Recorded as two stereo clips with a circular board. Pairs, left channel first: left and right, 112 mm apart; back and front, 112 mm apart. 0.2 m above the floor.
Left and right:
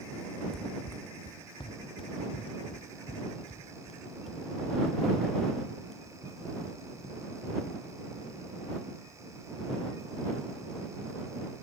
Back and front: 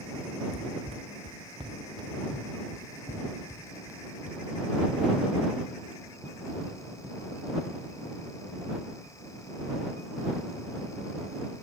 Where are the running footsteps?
5° left; by 8.0 s 85° left.